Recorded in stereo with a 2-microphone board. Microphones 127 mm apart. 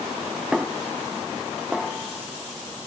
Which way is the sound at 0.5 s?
5° right (ahead or behind).